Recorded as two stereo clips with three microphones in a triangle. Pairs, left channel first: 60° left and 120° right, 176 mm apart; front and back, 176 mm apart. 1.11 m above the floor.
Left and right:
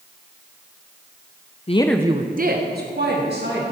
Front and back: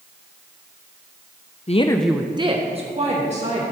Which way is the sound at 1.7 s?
30° left.